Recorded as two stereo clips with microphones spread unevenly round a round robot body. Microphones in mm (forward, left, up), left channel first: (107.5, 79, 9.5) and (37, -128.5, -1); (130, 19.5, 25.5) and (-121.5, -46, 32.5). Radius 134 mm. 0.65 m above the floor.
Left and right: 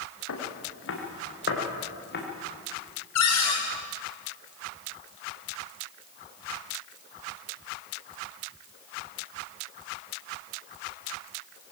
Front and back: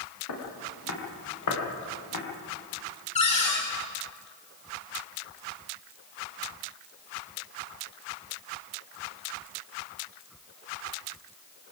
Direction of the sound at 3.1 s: 80° left.